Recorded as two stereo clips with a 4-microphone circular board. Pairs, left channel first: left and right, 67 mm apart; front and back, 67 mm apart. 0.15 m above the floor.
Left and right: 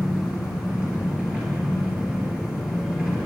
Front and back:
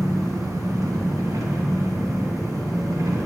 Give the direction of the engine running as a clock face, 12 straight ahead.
5 o'clock.